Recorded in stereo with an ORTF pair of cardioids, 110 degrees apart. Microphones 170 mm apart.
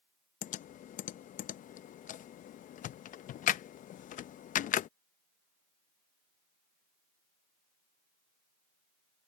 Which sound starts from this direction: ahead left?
Typing on a keyboard, at 0.4 s.